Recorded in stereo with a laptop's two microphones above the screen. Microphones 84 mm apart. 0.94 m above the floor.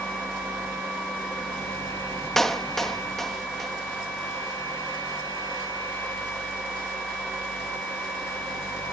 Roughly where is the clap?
Centre.